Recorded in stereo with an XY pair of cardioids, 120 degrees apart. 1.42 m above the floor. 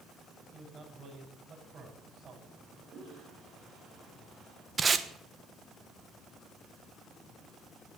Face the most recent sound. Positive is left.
turn(degrees=-30)